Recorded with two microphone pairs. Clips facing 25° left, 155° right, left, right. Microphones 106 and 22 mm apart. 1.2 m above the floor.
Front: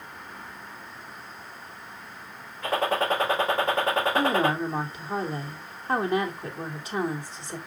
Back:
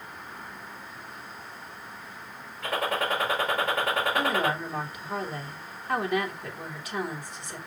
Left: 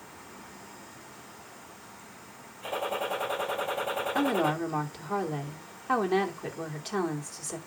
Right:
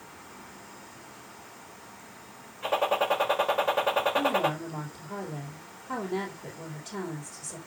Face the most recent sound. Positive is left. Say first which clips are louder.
# front 3 dB, even
turn(degrees=85)